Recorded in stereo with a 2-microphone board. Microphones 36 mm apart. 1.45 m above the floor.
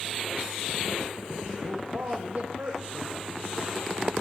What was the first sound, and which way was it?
A man speaking, 60° right (ahead or behind).